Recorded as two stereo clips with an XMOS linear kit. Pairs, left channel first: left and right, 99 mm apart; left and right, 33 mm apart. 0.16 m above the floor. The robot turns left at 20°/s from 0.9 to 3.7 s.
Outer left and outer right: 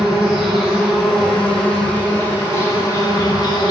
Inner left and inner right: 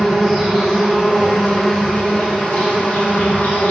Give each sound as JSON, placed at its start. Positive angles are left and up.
{"t": 0.0, "sound": "an insect", "azimuth_deg": 180, "distance_m": 1.2}